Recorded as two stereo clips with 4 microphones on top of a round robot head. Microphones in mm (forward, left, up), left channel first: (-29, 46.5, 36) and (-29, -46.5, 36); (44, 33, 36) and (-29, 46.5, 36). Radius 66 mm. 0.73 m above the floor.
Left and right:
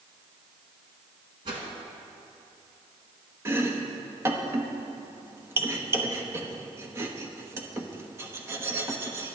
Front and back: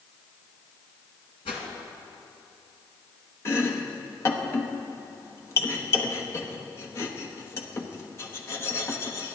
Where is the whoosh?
40° right, 2 m.